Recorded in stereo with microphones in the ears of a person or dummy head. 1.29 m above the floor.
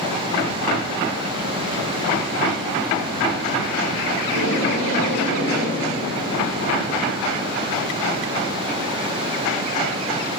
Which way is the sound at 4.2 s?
90° right.